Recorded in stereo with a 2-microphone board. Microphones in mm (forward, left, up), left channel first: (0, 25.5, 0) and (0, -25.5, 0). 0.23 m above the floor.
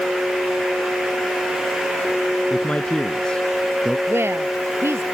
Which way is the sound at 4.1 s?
55° right (ahead or behind).